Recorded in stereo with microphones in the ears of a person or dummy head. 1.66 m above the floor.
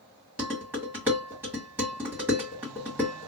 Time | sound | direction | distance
0.4 | dishes clattering | 15° right (ahead or behind) | 1.6 m